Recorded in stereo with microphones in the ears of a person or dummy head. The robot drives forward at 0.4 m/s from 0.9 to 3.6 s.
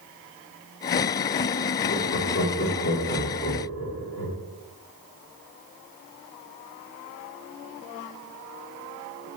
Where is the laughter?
60° left (ahead or behind), 2.5 m; by 4.4 s 50° left (ahead or behind), 3 m.